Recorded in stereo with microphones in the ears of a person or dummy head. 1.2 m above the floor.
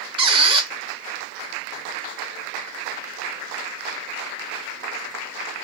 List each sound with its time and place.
0.2 s a squeak: 15° right (ahead or behind), 0.7 m